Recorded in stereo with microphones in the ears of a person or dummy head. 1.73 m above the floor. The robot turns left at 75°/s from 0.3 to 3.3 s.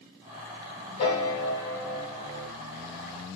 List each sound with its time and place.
1.0 s a piano: 65° left, 0.7 m; by 2.5 s 45° right, 0.7 m